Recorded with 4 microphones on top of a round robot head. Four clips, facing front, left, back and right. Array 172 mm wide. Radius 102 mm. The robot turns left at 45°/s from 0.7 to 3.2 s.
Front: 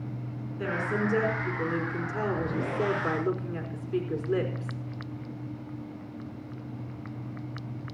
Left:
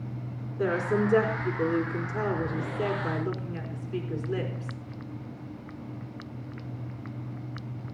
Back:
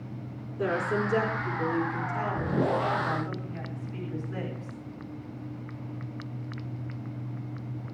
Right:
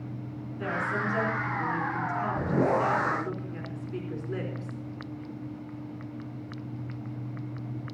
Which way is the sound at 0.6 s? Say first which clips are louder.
Left 5 dB, back 2 dB; 125° left.